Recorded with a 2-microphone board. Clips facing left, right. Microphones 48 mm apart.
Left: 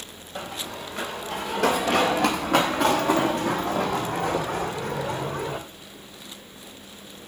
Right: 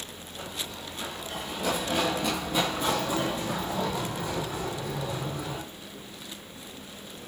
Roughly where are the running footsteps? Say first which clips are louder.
Left 5 dB; left.